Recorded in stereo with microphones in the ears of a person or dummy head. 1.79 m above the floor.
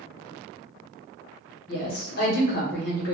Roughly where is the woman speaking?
Left.